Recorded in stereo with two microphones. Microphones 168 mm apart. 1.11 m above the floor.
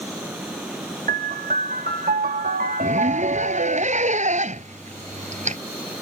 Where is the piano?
55° right (ahead or behind).